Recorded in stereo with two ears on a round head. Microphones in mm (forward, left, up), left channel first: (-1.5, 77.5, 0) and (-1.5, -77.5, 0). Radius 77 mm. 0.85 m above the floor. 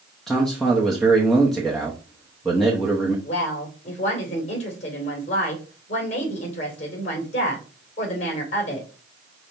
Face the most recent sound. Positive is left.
turn(degrees=40)  # may be behind; listen again after turning